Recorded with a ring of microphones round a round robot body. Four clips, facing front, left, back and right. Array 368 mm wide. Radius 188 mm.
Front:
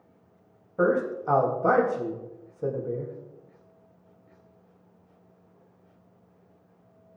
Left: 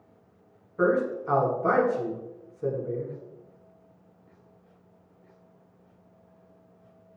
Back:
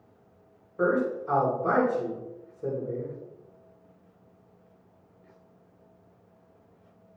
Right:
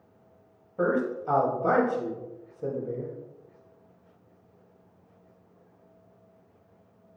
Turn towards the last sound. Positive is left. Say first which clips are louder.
# left 2 dB, front 1 dB
turn(degrees=-15)